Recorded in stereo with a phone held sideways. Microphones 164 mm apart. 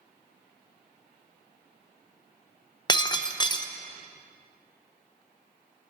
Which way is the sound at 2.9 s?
25° left (ahead or behind).